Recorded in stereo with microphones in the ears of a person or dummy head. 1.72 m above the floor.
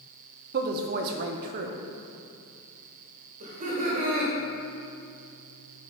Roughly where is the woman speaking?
Right.